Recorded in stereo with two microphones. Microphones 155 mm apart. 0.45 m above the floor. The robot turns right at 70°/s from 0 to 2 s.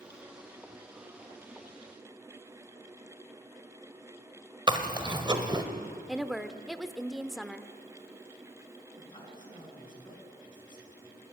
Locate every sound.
4.7 s chewing: 30° right (ahead or behind), 1.4 m
6.1 s a woman speaking: 5° right (ahead or behind), 0.9 m
9.0 s a man speaking: 30° left (ahead or behind), 5.5 m